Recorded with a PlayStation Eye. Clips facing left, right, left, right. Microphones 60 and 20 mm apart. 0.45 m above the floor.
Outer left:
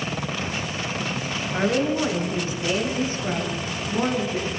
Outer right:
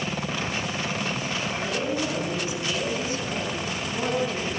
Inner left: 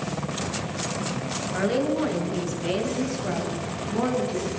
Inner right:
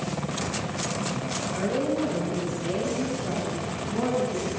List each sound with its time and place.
1.5 s a woman speaking: 55° left (ahead or behind), 6.5 m; by 4.5 s 20° left (ahead or behind), 6.5 m